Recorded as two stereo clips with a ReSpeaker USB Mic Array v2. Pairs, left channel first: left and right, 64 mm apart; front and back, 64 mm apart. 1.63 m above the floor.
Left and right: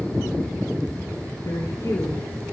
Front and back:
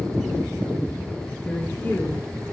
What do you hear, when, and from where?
1.4 s a woman speaking: 60° left, 2.5 m